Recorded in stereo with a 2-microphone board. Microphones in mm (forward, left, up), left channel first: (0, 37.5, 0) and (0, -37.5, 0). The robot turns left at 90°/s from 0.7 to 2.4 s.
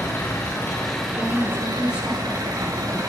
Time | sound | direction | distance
0.0 | an engine running | 35° left | 5 m
1.1 | a woman speaking | 50° left | 6.5 m